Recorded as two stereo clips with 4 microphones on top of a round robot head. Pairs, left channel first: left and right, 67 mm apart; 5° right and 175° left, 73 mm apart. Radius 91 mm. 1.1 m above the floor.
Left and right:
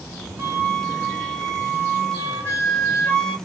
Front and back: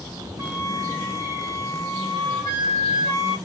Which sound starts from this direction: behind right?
A flute, at 0.4 s.